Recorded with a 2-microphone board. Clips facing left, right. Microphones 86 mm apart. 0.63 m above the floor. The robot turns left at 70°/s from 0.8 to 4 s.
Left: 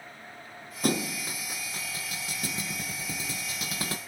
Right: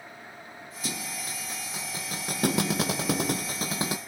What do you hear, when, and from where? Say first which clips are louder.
0.8 s a thud: left 9 dB; 55° left; by 4.0 s 165° right